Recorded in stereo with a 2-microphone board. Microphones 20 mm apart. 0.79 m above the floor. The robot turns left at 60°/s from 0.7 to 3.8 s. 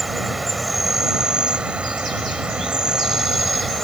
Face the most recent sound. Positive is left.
turn(degrees=165)